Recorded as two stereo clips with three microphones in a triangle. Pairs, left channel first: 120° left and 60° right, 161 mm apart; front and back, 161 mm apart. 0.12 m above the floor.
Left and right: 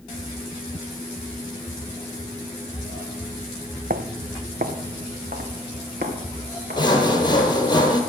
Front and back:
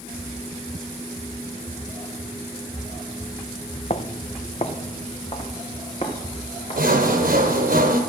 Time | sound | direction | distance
3.9 | footsteps | 45° right | 0.6 m
6.8 | sawing | straight behind | 1.5 m